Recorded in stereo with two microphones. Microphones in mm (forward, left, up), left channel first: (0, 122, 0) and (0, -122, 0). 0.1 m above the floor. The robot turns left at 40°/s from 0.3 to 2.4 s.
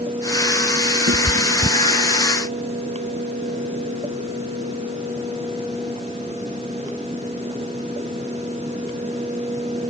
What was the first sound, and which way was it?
A cat meowing, 60° right (ahead or behind).